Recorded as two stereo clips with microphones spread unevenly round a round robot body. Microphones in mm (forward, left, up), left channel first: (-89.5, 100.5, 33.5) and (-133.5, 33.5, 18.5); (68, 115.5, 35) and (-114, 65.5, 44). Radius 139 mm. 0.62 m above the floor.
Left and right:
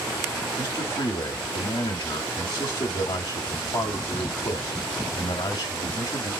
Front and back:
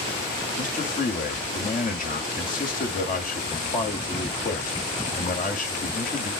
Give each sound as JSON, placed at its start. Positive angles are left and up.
{"t": 0.6, "sound": "a man speaking", "azimuth_deg": 40, "distance_m": 1.6}